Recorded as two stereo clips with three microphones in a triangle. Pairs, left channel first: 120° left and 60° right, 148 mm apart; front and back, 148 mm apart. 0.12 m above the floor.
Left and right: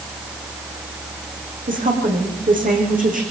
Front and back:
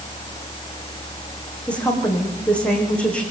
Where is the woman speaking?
80° right, 8 m.